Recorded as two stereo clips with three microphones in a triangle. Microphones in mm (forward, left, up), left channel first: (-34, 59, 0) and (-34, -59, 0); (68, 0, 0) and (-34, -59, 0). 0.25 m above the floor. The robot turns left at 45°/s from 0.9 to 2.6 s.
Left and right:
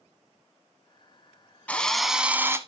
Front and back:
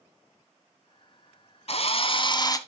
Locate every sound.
1.7 s a drill: 15° left, 0.9 m; by 2.6 s 25° right, 0.9 m